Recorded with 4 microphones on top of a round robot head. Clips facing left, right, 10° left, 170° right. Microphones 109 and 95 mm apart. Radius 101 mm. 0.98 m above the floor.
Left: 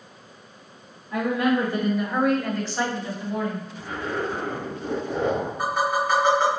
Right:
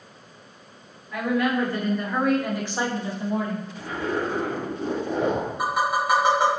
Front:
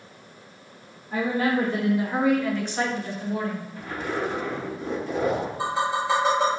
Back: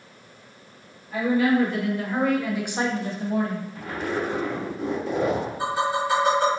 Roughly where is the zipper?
Behind right.